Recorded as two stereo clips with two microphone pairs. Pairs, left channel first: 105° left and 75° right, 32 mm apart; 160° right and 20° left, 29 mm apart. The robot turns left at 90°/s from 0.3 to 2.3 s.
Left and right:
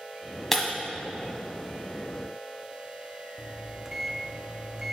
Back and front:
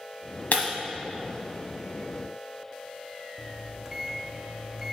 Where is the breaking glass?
170° right, 1.4 m; by 0.7 s straight behind, 1.4 m.